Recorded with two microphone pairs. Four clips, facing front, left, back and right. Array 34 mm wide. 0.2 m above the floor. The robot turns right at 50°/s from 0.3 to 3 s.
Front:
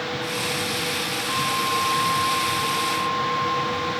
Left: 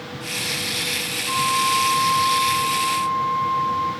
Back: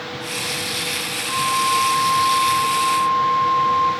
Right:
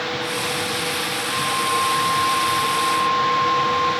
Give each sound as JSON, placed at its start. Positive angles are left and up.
{"t": 1.3, "sound": "a flute", "azimuth_deg": 110, "distance_m": 2.0}